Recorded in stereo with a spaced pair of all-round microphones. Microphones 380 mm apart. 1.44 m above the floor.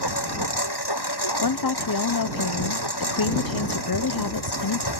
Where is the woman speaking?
65° left (ahead or behind).